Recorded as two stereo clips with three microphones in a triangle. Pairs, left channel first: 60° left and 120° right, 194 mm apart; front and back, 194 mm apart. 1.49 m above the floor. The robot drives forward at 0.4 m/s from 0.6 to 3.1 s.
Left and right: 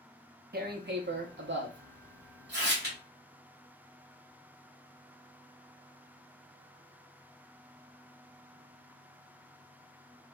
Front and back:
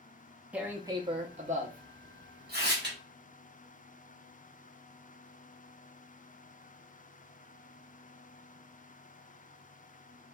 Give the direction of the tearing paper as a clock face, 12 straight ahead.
3 o'clock.